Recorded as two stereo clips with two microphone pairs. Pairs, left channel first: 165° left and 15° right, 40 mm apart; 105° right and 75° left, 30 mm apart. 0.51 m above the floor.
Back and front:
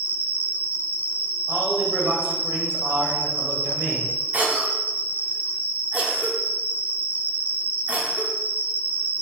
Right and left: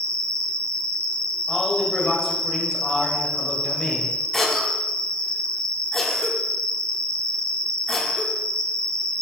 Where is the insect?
50° right, 0.9 m.